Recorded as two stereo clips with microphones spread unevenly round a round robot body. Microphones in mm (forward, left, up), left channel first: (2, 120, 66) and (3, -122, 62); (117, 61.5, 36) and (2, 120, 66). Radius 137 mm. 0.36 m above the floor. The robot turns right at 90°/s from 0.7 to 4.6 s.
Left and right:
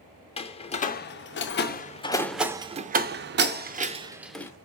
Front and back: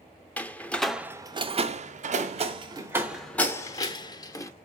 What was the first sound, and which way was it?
A door slam, 35° left.